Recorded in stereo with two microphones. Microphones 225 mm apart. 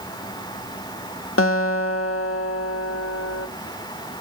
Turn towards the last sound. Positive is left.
turn(degrees=75)  # may be behind; listen again after turning